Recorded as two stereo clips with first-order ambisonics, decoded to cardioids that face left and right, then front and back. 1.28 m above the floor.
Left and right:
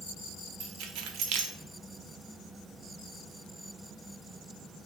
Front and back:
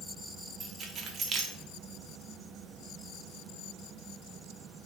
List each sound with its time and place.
0.6 s keys jangling: 115° right, 0.8 m